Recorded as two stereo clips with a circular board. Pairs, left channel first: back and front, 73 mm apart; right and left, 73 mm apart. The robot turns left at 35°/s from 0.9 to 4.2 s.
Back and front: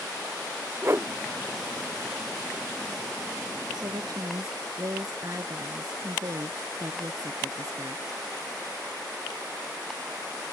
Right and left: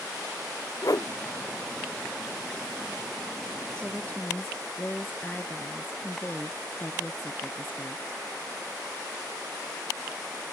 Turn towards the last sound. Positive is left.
turn(degrees=-30)